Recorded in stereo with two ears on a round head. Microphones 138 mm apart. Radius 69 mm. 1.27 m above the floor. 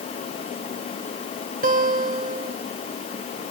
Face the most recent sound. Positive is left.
turn(degrees=-55)  # may be behind; listen again after turning